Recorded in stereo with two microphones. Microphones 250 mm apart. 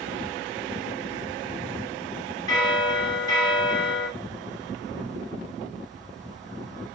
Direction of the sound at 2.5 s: 15° left (ahead or behind).